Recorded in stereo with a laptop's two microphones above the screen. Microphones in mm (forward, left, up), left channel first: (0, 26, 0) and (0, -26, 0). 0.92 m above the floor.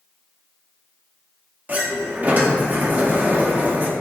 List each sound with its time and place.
1.7 s a sliding door: 35° right (ahead or behind), 0.9 m